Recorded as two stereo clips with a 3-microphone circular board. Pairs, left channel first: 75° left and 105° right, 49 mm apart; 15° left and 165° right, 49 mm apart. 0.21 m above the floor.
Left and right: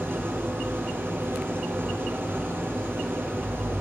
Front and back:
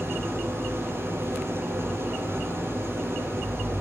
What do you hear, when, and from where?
0.0 s an engine running: 145° right, 4.5 m